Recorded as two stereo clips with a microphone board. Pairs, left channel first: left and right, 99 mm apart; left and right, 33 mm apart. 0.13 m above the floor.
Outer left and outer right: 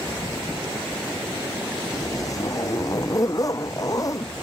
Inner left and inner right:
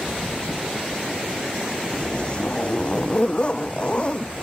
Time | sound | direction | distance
1.9 | a zipper | 35° left (ahead or behind) | ?